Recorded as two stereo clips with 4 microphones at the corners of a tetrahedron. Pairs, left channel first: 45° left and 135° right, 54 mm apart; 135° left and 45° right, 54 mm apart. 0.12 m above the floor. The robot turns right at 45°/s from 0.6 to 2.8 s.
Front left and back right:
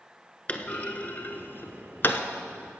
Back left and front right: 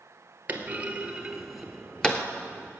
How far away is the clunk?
About 1.0 m.